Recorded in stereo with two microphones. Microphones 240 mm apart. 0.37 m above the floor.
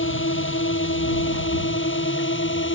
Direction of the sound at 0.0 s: 60° left (ahead or behind).